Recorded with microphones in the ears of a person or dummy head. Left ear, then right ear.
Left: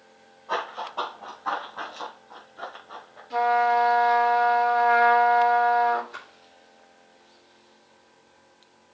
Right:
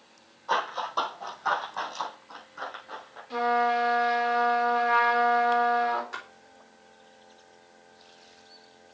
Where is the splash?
60° right (ahead or behind), 3.5 m.